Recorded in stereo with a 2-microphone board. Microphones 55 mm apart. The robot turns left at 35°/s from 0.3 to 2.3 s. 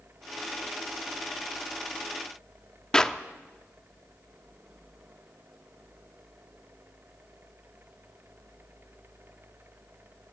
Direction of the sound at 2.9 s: 15° left (ahead or behind).